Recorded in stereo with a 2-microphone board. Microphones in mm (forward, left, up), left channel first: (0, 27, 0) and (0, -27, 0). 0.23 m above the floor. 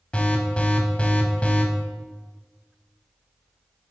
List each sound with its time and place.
0.1 s an alarm: 20° left (ahead or behind), 0.9 m